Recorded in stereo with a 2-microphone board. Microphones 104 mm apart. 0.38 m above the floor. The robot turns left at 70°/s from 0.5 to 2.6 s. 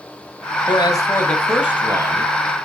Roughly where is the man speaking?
Ahead left.